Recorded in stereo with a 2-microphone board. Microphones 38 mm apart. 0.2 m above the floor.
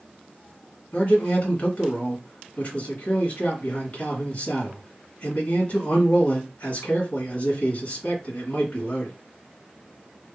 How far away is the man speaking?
About 1.5 m.